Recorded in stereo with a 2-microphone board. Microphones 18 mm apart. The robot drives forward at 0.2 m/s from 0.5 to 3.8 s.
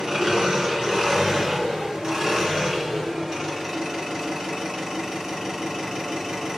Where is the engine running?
40° right (ahead or behind), 1.3 m; by 6.6 s 30° right (ahead or behind), 1.7 m.